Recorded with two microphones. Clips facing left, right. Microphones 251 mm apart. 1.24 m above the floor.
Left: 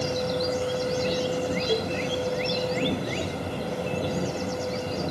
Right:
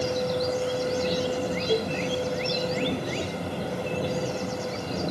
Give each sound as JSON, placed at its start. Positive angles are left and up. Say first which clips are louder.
{"t": 1.7, "sound": "a cowbell", "louder": "right 3 dB", "side_deg": 10, "distance_m": 0.7}